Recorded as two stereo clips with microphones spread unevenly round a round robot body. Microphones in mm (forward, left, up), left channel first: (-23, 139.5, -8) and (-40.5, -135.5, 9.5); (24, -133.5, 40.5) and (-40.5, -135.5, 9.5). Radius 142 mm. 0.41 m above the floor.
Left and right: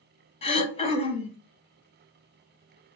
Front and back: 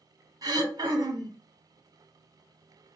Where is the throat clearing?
155° left, 0.8 m.